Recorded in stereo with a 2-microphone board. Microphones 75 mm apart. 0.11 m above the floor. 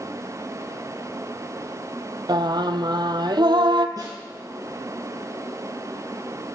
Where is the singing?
75° right (ahead or behind), 0.6 m.